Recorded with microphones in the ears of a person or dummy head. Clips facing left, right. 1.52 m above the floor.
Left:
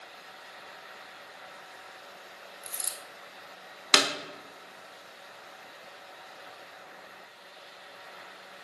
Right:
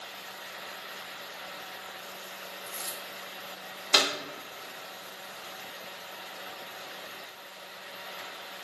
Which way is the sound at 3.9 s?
90° left.